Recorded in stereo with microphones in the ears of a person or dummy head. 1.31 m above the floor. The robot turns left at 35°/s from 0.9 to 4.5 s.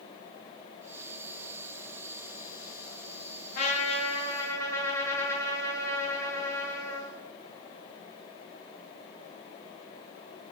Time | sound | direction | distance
3.5 | a trumpet | 50° left | 1.1 m